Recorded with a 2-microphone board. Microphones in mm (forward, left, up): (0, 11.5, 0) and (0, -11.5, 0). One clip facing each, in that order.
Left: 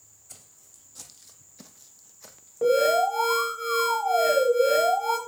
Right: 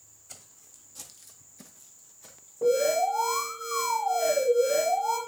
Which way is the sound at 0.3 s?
15° right (ahead or behind).